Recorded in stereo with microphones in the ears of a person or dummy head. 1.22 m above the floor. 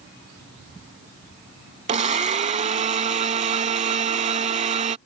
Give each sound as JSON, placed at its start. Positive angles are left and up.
{"t": 1.9, "sound": "a blender", "side_deg": -40}